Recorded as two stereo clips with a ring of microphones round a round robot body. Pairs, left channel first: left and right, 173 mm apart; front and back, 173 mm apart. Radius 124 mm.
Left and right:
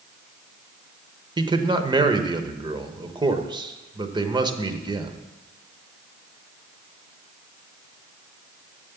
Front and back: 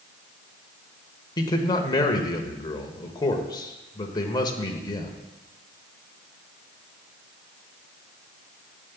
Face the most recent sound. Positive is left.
turn(degrees=-50)